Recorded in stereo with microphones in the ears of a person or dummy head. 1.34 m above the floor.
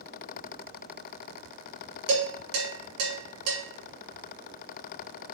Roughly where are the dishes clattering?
Right.